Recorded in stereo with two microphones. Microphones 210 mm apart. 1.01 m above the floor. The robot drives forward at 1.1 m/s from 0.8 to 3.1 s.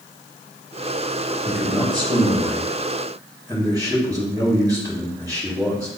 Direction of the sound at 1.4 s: 30° right (ahead or behind).